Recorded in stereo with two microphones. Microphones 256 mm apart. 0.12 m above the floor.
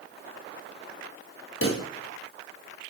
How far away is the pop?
About 1.3 m.